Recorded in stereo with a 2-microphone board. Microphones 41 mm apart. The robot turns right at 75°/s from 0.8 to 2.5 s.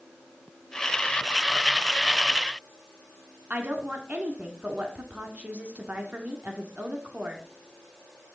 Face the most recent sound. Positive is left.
turn(degrees=-40)  # may be behind; listen again after turning